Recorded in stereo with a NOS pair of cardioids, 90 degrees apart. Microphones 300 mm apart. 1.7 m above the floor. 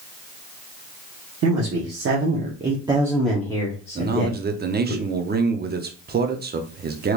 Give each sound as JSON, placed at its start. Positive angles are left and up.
{"t": 1.4, "sound": "a man speaking", "azimuth_deg": -60, "distance_m": 1.5}
{"t": 4.0, "sound": "a man speaking", "azimuth_deg": -30, "distance_m": 0.8}